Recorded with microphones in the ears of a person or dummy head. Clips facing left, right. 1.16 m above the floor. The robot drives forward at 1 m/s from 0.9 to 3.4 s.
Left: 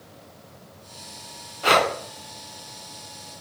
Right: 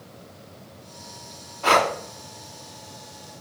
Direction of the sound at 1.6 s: 20° left (ahead or behind).